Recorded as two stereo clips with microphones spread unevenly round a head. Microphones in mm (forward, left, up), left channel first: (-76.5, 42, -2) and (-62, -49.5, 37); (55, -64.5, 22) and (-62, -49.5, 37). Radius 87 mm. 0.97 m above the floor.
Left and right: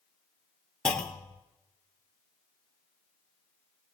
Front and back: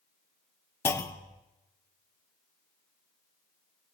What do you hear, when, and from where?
0.8 s a clunk: 45° left, 0.9 m